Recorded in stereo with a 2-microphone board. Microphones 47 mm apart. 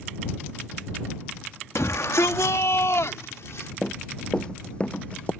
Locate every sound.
1.8 s a shout: 70° left (ahead or behind)
3.8 s running footsteps: 10° left (ahead or behind); by 5.3 s 25° left (ahead or behind)